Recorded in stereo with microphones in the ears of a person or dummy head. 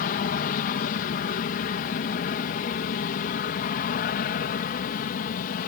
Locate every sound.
0.0 s an aircraft: 45° left (ahead or behind)